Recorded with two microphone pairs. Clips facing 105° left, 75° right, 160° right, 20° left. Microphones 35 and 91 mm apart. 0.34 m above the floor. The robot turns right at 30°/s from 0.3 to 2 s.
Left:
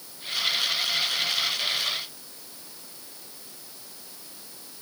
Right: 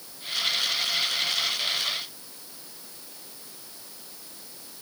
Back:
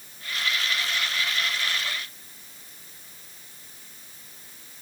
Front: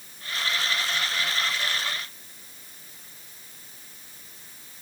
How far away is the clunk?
No clunk in this recording.